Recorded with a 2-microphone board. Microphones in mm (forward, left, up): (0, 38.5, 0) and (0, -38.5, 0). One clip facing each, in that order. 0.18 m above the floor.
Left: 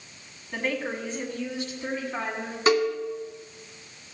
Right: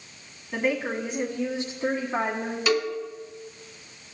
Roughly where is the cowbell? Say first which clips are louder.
Left 4 dB; left.